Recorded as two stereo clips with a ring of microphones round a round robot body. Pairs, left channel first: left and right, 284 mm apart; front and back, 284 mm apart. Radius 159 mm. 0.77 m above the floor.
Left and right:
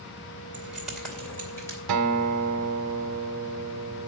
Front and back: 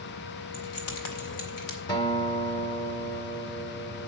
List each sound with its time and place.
0.5 s keys jangling: 5° right, 2 m; by 1.8 s 10° left, 3 m
1.9 s a guitar: 75° right, 0.7 m